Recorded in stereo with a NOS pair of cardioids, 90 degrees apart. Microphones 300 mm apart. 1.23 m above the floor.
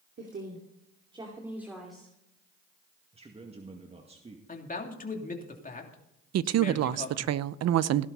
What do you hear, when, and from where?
0.2 s a woman speaking: 40° right, 3 m; by 2.1 s 5° left, 3 m
3.1 s a man speaking: 20° right, 2 m
4.5 s a man speaking: 30° left, 3 m
6.3 s a woman speaking: 60° right, 0.7 m